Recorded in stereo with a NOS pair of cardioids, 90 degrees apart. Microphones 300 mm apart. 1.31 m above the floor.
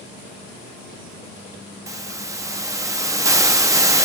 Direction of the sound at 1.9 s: 10° right.